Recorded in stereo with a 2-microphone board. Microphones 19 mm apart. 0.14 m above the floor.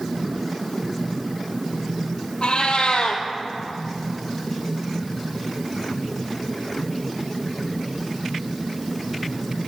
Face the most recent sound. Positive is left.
turn(degrees=75)  # may be behind; listen again after turning